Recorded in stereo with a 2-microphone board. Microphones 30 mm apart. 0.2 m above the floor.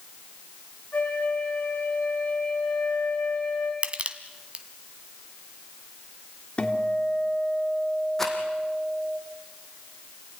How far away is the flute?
About 7.5 m.